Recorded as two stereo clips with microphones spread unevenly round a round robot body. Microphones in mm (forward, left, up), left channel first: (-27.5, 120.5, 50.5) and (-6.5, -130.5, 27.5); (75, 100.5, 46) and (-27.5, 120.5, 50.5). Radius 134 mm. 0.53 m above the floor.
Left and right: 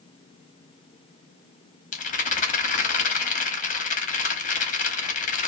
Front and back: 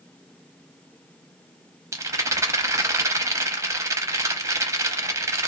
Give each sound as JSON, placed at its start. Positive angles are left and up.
{"t": 1.9, "sound": "a rattle", "azimuth_deg": 130, "distance_m": 0.8}